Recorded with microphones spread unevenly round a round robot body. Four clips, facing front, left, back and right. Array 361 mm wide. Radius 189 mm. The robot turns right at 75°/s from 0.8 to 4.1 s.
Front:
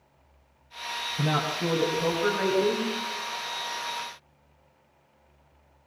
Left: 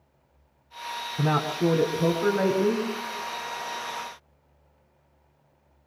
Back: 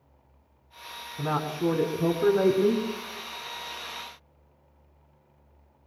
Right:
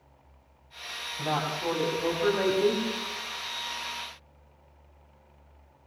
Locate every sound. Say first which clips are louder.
1.2 s a man speaking: left 5 dB, back 1 dB; 85° left, 3 m; by 2.9 s 150° right, 3 m